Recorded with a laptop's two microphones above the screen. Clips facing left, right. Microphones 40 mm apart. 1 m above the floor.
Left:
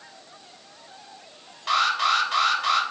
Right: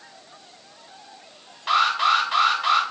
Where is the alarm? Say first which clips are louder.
Right 2 dB; 10° right (ahead or behind), 3 m.